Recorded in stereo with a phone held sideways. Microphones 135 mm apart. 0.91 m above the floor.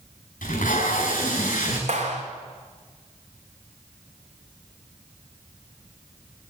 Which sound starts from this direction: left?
Tape being pulled, at 0.4 s.